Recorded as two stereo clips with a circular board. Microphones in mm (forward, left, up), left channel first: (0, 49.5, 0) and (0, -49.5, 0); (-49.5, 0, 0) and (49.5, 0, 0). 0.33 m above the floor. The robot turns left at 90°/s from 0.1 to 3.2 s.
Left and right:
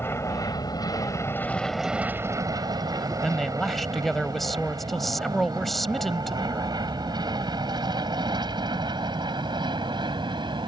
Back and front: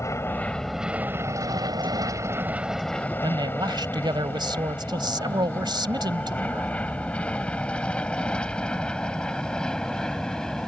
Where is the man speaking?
Straight ahead.